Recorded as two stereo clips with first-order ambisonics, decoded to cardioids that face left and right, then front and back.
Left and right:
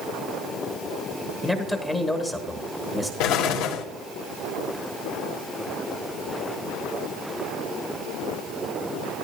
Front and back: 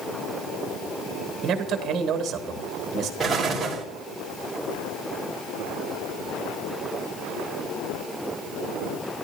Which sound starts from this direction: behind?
A man speaking, at 1.4 s.